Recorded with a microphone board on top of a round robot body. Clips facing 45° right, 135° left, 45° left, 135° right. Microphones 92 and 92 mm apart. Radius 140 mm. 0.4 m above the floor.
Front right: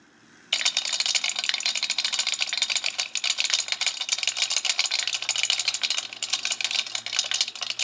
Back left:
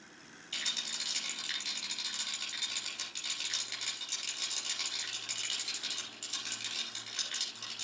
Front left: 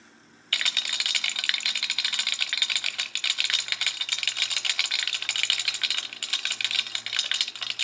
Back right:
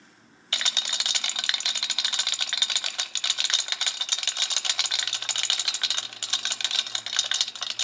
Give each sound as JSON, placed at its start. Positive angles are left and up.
{"t": 0.5, "sound": "a rattle", "azimuth_deg": -70, "distance_m": 0.6}